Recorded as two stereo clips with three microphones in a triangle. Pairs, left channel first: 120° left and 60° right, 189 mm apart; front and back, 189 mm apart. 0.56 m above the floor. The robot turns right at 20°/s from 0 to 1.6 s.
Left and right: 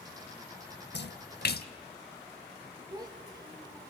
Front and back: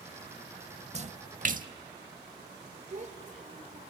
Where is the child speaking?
130° right, 1.4 m.